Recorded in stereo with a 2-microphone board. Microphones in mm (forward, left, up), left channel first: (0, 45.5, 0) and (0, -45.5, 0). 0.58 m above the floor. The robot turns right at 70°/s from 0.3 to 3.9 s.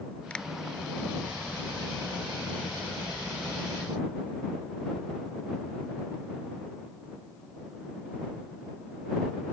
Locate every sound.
0.3 s a finger snap: 15° left (ahead or behind); by 0.5 s 5° left (ahead or behind)